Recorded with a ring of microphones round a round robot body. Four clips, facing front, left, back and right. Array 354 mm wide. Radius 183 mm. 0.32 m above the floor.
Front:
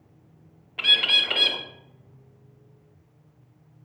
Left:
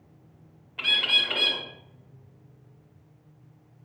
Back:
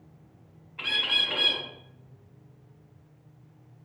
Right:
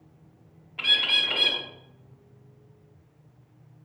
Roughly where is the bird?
Ahead.